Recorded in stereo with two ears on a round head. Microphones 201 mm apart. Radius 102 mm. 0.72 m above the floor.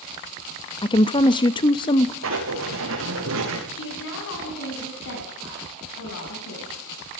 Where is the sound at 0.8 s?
20° left (ahead or behind), 0.7 m.